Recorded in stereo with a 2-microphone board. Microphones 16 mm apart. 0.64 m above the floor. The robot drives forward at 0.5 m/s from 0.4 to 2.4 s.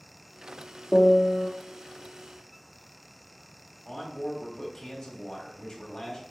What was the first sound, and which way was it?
A piano, 55° left (ahead or behind).